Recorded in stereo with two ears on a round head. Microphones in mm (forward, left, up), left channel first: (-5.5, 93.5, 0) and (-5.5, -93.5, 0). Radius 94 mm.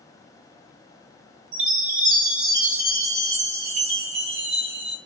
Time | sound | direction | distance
1.5 | a chime | 45° right (ahead or behind) | 2.0 m